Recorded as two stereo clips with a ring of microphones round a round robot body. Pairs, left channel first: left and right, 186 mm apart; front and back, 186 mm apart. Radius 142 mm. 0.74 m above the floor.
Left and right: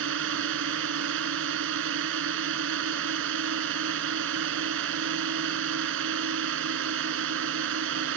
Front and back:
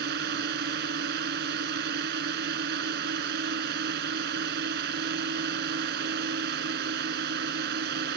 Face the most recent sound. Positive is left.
turn(degrees=-125)